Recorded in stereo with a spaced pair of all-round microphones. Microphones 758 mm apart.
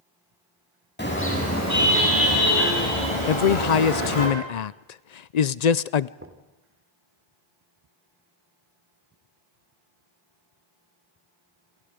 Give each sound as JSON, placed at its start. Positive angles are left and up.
{"t": 1.0, "sound": "a car horn", "side_deg": 15, "distance_m": 6.5}
{"t": 3.3, "sound": "a man speaking", "side_deg": 65, "distance_m": 0.7}
{"t": 6.2, "sound": "knocking", "side_deg": -15, "distance_m": 2.5}